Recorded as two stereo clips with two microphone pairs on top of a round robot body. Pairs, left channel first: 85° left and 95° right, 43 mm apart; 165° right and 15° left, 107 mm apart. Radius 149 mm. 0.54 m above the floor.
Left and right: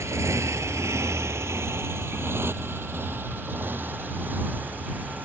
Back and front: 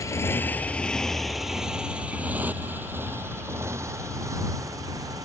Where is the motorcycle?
105° right; by 5.2 s 45° right.